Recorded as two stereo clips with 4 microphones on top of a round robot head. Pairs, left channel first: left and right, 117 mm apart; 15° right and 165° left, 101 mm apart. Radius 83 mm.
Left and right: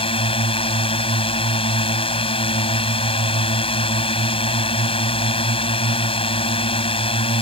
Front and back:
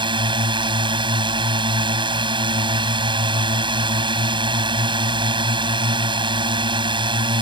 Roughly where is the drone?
Behind left.